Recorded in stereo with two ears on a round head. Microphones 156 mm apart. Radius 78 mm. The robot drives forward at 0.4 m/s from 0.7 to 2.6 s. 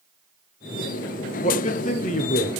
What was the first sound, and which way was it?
A man speaking, 40° left (ahead or behind).